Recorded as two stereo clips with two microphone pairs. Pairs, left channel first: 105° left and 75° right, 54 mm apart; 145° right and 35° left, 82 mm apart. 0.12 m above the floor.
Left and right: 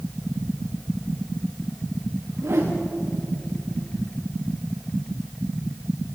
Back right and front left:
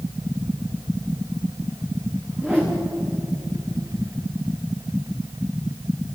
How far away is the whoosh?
About 4.5 m.